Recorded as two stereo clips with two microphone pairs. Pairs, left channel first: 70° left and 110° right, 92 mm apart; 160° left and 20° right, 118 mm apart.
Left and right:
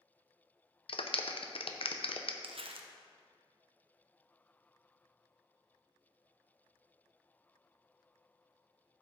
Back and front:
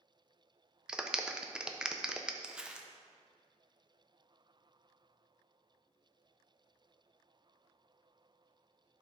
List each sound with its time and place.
0.9 s a clap: 60° left, 0.7 m
2.4 s crumpling: 100° right, 0.7 m